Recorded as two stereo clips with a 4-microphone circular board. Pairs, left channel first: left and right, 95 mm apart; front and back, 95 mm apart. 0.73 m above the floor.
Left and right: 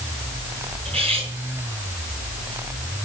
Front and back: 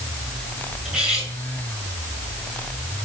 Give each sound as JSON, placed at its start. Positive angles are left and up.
{"t": 0.8, "sound": "cutlery clinking", "azimuth_deg": -100, "distance_m": 6.5}